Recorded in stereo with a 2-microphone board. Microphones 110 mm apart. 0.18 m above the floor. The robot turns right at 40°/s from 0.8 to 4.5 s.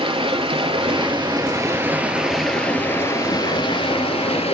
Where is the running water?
65° right, 1.6 m; by 4.5 s 85° left, 1.6 m.